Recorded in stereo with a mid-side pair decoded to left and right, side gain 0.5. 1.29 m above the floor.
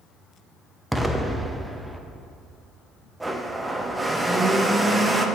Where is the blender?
10° right, 0.6 m.